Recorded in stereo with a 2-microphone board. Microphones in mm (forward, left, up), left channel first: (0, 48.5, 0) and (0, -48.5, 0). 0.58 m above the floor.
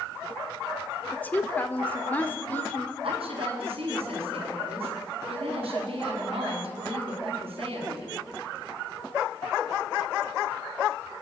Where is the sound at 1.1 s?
20° left (ahead or behind), 1.5 m.